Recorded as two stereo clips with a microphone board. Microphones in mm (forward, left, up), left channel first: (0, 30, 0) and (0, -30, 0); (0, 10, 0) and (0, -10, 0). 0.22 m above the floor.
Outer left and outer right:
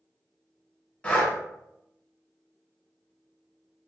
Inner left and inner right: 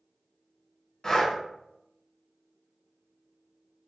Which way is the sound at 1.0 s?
25° left (ahead or behind).